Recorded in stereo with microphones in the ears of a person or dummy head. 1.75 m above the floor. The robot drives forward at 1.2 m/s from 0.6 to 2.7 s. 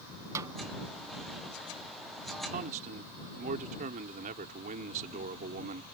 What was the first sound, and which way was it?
A snare drum, 20° right (ahead or behind).